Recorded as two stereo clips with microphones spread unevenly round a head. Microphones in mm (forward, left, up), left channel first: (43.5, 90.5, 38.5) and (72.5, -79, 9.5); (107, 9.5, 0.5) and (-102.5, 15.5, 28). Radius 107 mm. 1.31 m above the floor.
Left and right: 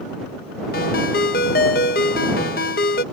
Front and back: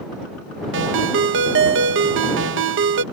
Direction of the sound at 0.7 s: 150° left.